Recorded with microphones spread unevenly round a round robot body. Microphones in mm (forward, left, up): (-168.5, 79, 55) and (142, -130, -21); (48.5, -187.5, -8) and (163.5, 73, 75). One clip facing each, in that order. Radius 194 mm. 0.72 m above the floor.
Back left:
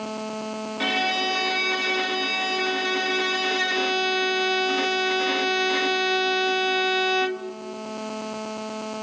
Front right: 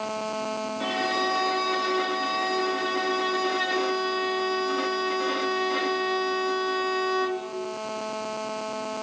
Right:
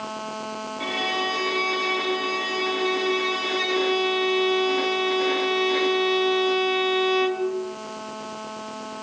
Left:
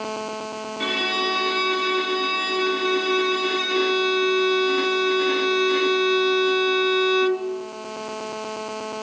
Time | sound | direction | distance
0.8 | a violin | 150° left | 1.1 m